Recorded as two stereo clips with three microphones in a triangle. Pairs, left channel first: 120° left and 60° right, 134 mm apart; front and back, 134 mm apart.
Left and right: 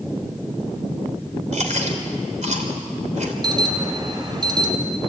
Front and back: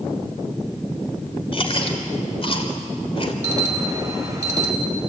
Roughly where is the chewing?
Ahead right.